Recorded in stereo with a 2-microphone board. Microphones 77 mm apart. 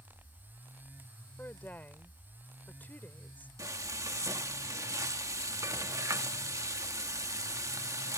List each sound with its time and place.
1.4 s a woman speaking: 25° left (ahead or behind)
3.6 s frying: 45° right (ahead or behind)